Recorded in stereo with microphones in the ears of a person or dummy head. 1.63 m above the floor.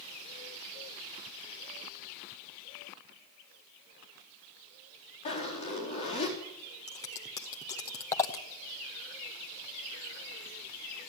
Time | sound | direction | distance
5.2 | a zipper | 30° left (ahead or behind) | 4.5 m
6.9 | scissors | 15° left (ahead or behind) | 0.9 m